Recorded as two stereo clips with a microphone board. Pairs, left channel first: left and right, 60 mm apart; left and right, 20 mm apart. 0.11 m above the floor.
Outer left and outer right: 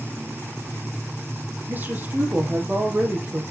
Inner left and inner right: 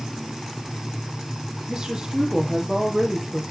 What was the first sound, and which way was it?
A woman speaking, 30° right (ahead or behind).